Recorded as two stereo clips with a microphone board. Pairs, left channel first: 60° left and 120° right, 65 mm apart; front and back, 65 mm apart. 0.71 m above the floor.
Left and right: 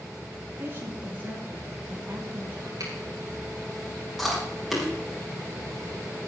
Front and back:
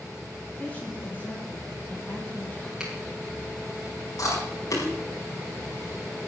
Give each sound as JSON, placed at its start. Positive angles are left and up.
{"t": 0.6, "sound": "a woman speaking", "azimuth_deg": -65, "distance_m": 5.5}
{"t": 2.8, "sound": "a finger snap", "azimuth_deg": -100, "distance_m": 5.0}
{"t": 4.2, "sound": "chewing", "azimuth_deg": -30, "distance_m": 5.5}